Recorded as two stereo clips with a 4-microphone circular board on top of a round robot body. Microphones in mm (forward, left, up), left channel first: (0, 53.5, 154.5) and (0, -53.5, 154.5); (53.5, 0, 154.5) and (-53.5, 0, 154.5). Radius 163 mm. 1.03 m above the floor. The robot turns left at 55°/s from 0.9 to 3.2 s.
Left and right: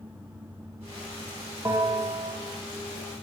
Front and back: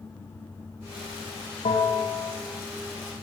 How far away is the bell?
About 1.6 m.